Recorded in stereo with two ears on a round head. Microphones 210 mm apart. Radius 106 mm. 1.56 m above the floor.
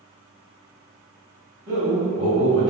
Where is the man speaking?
45° right (ahead or behind), 1.4 m; by 2.7 s 15° right (ahead or behind), 1.5 m.